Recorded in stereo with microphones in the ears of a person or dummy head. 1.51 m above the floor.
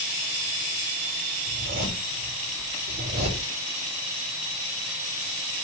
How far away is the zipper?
About 3.5 m.